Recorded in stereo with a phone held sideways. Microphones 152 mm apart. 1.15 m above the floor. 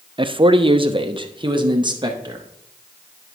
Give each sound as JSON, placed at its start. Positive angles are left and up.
{"t": 0.2, "sound": "a man speaking", "side_deg": -30, "distance_m": 0.5}